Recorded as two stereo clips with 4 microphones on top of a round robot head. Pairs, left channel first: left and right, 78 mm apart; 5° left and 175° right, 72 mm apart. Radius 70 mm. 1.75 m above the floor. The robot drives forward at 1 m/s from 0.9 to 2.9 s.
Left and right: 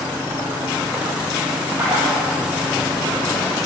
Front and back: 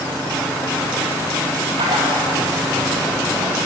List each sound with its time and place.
1.8 s a splash: 165° right, 1.6 m; by 2.3 s 170° right, 2 m